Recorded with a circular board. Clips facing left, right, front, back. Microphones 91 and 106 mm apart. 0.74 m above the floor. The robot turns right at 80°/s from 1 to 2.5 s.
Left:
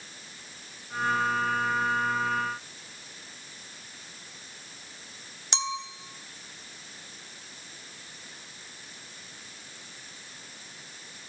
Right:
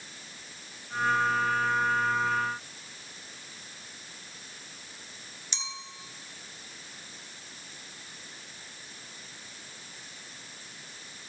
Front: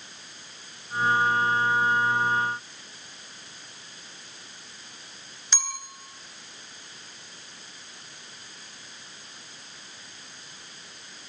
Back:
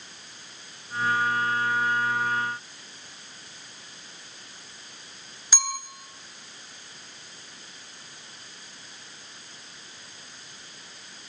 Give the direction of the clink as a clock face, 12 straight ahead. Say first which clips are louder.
Left 12 dB, back 4 dB; 9 o'clock.